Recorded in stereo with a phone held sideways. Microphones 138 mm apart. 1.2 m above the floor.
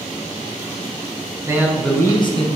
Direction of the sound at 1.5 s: 20° right (ahead or behind).